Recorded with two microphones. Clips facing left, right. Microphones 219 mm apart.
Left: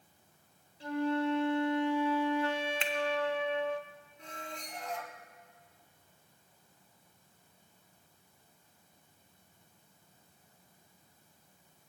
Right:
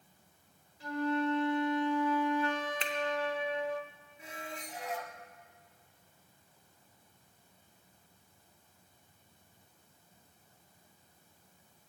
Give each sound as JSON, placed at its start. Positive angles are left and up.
{"t": 0.8, "sound": "a flute", "side_deg": 30, "distance_m": 0.8}
{"t": 2.8, "sound": "a finger snap", "side_deg": -40, "distance_m": 0.8}
{"t": 4.2, "sound": "a squeak", "side_deg": -5, "distance_m": 1.0}